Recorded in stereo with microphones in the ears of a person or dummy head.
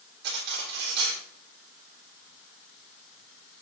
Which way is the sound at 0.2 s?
60° right (ahead or behind).